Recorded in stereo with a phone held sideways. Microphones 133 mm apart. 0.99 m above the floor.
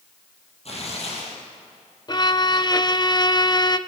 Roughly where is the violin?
Left.